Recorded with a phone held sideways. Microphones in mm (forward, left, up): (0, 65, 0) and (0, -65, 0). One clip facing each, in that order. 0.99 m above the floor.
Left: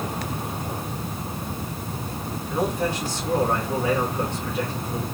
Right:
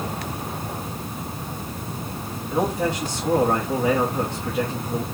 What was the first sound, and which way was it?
A man speaking, 20° right (ahead or behind).